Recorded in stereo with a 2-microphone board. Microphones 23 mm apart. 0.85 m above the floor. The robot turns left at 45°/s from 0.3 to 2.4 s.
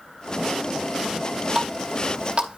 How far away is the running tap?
About 0.9 m.